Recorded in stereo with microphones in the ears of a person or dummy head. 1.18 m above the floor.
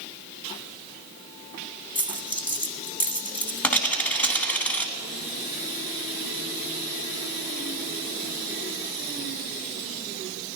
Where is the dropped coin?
5° left (ahead or behind), 1.4 m.